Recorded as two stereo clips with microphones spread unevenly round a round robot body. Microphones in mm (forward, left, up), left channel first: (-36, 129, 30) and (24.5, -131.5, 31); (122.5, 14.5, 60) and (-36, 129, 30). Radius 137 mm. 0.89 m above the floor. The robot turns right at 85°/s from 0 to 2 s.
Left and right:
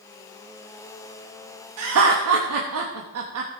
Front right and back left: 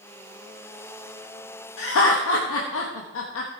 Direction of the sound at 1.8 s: 65° right.